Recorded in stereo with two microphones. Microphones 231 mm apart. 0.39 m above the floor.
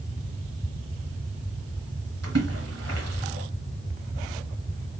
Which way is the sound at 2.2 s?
80° right.